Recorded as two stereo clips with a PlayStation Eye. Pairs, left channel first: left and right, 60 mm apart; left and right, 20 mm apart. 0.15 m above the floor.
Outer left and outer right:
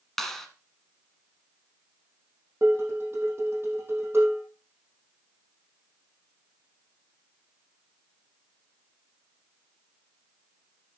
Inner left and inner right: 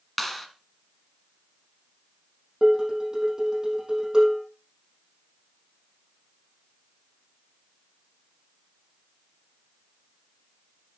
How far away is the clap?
About 1.3 m.